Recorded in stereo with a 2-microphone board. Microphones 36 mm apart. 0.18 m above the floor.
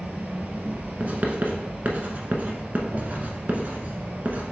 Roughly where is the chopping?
I don't hear chopping.